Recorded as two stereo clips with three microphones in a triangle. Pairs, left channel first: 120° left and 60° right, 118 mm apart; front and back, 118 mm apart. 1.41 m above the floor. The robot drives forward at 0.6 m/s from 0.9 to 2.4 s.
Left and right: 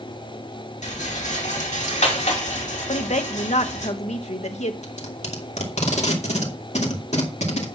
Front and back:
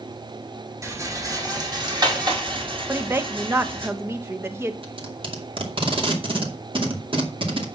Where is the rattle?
115° left, 2.5 m; by 3.9 s 130° left, 3 m.